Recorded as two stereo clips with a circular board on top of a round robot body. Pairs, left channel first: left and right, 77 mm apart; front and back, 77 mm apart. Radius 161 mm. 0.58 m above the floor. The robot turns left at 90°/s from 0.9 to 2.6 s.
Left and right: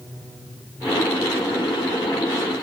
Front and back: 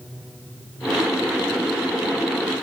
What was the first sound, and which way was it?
Only background noise.